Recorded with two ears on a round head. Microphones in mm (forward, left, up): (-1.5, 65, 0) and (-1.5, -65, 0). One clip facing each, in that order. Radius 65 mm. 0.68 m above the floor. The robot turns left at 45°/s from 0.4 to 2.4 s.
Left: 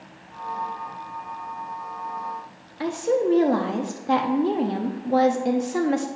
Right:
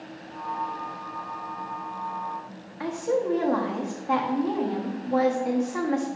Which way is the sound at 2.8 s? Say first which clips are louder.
Left 4 dB; 35° left (ahead or behind).